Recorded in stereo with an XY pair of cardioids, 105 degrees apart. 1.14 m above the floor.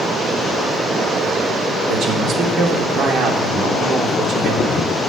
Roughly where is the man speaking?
Ahead right.